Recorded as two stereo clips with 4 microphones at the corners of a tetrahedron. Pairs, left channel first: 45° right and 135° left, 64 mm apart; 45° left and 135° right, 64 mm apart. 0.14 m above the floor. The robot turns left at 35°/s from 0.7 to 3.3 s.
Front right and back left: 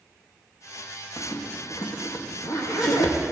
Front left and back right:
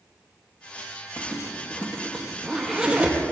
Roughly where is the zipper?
Ahead.